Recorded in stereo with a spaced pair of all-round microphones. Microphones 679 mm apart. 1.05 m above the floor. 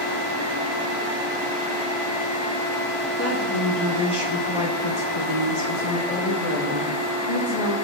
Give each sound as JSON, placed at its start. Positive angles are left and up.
{"t": 3.2, "sound": "a woman speaking", "side_deg": 20, "distance_m": 1.7}